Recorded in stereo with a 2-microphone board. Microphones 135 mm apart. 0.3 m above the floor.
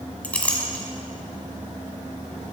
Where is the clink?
10° left (ahead or behind), 1.6 m.